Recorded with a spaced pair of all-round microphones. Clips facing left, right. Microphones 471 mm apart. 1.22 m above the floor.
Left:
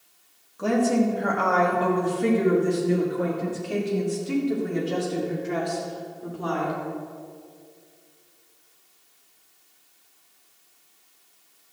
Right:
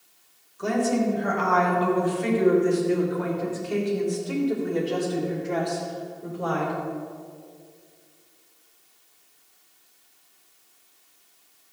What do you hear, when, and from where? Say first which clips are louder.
0.6 s a woman speaking: left 2 dB; 80° left, 2.5 m; by 6.8 s 30° left (ahead or behind), 4 m